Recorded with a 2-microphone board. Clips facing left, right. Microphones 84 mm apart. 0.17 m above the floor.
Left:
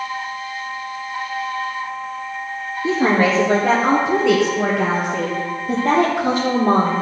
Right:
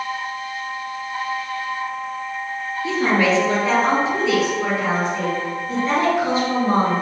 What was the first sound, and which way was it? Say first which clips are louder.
A woman speaking: left 2 dB; 35° left (ahead or behind).